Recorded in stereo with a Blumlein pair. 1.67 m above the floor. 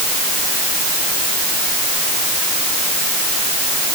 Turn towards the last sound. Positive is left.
No sound to turn to.